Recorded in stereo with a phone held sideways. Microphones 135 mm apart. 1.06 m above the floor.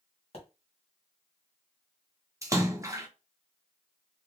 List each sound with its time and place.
0.3 s a pop: 50° left (ahead or behind), 1.8 m
2.4 s a splash: 25° right (ahead or behind), 0.7 m